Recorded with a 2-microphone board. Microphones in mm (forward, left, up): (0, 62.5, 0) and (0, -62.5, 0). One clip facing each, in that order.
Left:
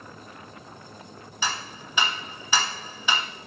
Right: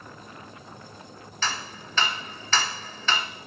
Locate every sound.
1.4 s ticking: 10° left (ahead or behind), 0.5 m